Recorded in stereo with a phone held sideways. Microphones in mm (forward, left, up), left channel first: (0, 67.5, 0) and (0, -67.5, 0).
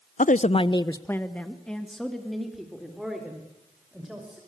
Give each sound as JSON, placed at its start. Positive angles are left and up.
{"t": 0.2, "sound": "a woman speaking", "side_deg": 70, "distance_m": 0.6}